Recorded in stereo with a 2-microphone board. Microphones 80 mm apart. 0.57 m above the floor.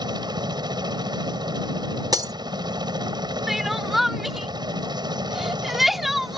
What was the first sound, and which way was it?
A helicopter, 65° right (ahead or behind).